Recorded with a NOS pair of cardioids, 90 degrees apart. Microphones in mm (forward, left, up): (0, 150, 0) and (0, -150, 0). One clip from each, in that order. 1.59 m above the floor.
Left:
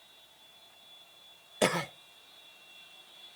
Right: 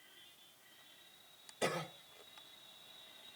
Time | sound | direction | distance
1.6 | a cough | 60° left | 0.5 m